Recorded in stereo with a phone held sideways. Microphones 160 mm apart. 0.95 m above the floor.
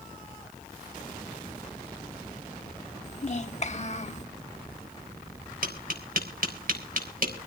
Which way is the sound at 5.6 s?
65° right (ahead or behind).